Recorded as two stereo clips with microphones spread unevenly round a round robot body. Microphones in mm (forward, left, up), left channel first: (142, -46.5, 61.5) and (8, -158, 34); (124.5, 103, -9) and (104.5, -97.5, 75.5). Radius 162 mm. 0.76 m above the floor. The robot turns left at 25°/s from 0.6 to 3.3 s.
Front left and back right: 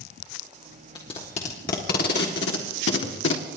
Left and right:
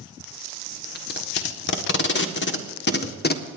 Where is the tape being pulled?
115° left, 1.5 m; by 3.5 s 55° left, 1.5 m.